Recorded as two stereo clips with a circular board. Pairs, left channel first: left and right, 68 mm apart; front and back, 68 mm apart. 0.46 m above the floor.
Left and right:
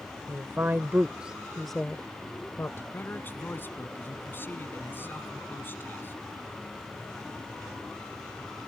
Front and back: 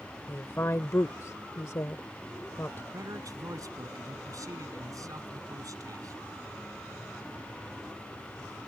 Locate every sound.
0.3 s a woman speaking: 50° right; by 2.8 s 45° left
2.9 s a man speaking: 150° left